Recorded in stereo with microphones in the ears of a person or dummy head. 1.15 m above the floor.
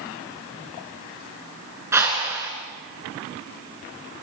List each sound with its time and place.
1.9 s a whoosh: 15° right (ahead or behind), 4 m